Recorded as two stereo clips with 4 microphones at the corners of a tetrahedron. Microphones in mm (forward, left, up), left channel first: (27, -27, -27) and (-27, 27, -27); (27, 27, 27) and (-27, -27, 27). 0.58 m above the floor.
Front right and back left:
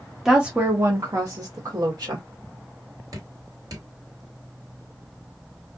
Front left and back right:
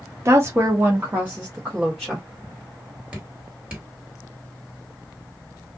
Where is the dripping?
150° left, 1.9 m.